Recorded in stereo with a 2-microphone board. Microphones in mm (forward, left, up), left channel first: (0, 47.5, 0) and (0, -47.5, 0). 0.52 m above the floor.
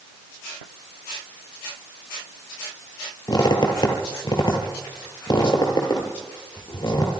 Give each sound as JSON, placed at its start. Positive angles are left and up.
{"t": 3.3, "sound": "a squeak", "side_deg": 50, "distance_m": 4.0}